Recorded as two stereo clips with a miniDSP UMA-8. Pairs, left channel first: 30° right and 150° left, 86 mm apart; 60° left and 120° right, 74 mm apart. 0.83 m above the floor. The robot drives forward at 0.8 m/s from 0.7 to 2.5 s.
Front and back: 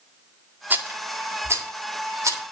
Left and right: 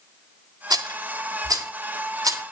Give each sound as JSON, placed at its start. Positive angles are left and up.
{"t": 0.7, "sound": "a rattle", "azimuth_deg": -140, "distance_m": 1.9}